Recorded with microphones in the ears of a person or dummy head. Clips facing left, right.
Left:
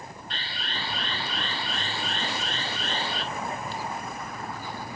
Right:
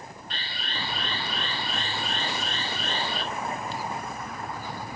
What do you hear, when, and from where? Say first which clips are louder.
0.3 s an alarm: even; 75° right (ahead or behind), 4 m